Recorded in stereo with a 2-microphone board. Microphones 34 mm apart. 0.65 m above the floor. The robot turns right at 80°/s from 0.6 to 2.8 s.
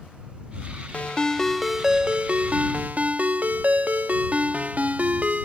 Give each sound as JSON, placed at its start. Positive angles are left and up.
{"t": 0.9, "sound": "a ringtone", "azimuth_deg": 125}